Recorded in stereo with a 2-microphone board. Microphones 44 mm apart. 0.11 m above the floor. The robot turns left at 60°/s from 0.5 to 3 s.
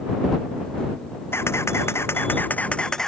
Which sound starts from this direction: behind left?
A camera shutter, at 1.3 s.